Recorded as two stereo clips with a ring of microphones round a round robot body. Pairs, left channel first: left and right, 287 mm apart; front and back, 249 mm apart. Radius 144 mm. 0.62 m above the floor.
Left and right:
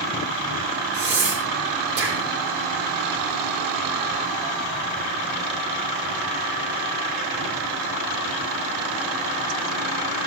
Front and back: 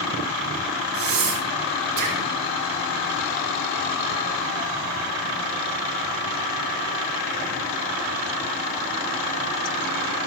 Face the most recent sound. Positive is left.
turn(degrees=-135)